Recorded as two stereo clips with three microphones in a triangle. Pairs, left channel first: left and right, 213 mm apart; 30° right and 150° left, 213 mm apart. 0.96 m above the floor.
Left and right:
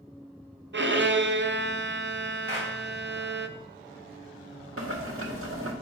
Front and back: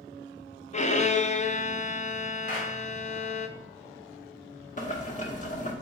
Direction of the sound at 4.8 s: 85° right.